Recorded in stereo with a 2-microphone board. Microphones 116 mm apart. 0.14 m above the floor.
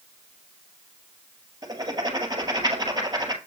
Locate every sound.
1.6 s writing: 35° right (ahead or behind), 1.8 m